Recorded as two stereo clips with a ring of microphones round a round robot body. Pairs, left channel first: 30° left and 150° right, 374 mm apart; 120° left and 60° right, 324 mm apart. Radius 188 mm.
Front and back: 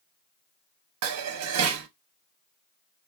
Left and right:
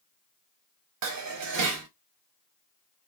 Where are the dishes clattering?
100° right, 0.7 m.